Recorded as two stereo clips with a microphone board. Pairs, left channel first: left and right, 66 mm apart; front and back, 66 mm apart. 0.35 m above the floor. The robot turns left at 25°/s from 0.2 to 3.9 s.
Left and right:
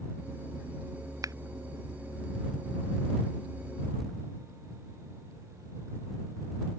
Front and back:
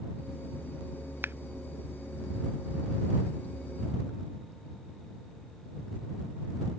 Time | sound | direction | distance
1.2 | scissors | 120° right | ?